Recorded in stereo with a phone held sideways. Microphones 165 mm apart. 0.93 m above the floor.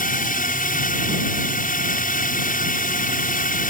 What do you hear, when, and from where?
0.0 s a drone: 55° left (ahead or behind)